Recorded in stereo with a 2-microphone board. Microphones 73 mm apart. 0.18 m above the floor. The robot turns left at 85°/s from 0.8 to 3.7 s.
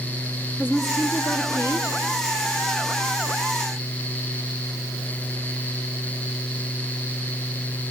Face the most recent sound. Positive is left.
turn(degrees=-100)